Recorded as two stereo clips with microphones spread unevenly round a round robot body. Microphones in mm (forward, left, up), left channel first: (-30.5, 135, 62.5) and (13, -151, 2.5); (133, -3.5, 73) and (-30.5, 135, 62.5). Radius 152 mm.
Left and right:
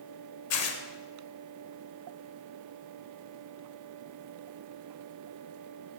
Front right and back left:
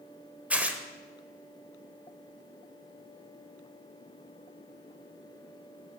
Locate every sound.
0.5 s tearing paper: 55° left, 1.0 m